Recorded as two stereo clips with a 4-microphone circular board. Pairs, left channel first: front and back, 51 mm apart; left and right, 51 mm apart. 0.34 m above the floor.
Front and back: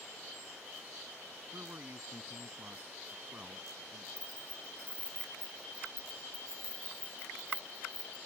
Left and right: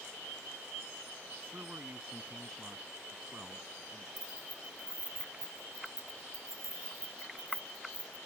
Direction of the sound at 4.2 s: 110° left.